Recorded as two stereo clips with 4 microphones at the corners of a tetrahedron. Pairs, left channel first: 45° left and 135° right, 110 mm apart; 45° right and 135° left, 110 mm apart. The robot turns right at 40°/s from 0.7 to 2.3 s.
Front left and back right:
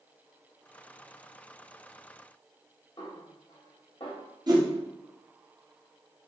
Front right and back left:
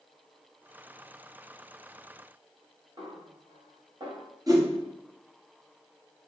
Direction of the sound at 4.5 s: Straight behind.